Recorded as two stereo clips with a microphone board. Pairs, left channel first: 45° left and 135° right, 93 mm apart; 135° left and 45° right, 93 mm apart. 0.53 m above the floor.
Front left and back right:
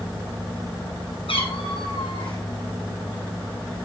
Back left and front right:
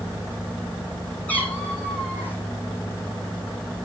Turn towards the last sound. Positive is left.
turn(degrees=65)